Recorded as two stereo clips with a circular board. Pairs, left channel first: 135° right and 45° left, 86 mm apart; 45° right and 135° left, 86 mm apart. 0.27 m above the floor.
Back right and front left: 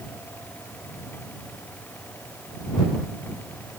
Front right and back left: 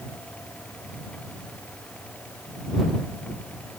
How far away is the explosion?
No explosion in this recording.